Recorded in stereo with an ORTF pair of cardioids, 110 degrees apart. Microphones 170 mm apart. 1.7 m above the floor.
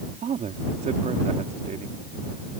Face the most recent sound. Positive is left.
turn(degrees=-45)